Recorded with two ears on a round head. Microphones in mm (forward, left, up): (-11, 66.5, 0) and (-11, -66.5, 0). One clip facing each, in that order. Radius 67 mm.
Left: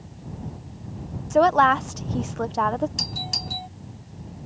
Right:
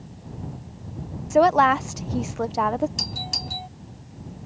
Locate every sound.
1.3 s a woman speaking: 5° right (ahead or behind)
3.0 s a doorbell: centre (ahead or behind)